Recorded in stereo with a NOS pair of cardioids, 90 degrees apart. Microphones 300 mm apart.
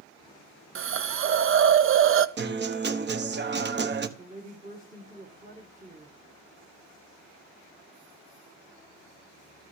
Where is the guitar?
35° right, 1.1 m.